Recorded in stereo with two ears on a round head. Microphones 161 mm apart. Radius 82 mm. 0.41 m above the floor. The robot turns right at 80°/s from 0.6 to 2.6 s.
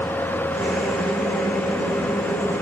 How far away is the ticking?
No ticking in this recording.